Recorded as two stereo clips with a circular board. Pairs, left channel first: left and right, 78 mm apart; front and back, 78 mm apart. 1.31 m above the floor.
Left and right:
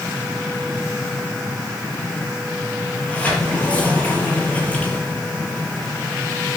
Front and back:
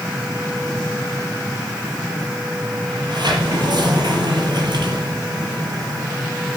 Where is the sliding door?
160° left, 6.5 m.